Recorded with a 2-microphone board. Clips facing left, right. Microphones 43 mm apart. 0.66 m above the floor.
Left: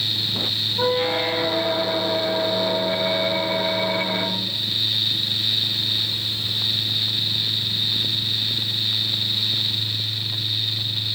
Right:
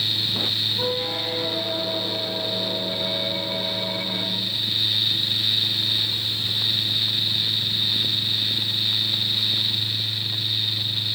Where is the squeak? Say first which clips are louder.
Left 5 dB; 50° left (ahead or behind), 0.8 m.